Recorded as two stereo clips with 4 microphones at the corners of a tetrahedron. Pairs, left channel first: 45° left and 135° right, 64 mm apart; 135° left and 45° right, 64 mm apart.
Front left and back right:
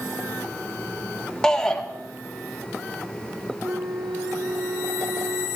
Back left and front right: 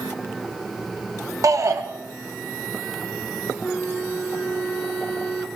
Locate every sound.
1.4 s a shout: 30° right, 1.6 m
3.6 s a flute: 150° right, 1.2 m